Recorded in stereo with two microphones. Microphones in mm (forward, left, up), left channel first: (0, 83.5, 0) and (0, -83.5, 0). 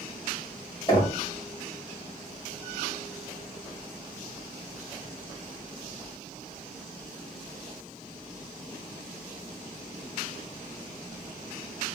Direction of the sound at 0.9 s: 25° left (ahead or behind).